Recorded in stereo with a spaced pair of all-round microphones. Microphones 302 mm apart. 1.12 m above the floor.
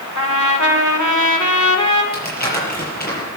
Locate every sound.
0.1 s a trumpet: 70° left (ahead or behind), 2 m
2.1 s crumpling: 30° left (ahead or behind), 6 m